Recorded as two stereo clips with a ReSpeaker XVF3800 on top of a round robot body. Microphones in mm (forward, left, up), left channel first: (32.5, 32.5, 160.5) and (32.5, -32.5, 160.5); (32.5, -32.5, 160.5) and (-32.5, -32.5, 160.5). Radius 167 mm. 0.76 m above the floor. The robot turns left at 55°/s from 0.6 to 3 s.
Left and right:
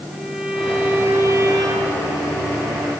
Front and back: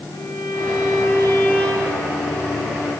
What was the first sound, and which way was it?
A violin, 10° right.